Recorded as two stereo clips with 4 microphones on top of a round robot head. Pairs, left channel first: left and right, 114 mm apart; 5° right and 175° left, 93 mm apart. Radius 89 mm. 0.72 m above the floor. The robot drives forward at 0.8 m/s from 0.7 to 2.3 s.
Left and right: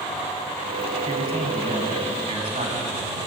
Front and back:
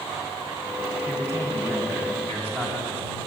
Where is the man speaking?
115° right, 6 m; by 3.2 s 125° right, 6.5 m.